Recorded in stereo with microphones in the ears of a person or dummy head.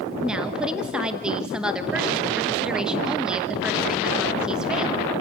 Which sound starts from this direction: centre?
A woman speaking, at 0.2 s.